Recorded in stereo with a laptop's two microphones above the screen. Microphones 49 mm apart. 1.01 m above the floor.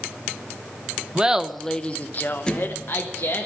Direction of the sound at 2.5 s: 20° left (ahead or behind).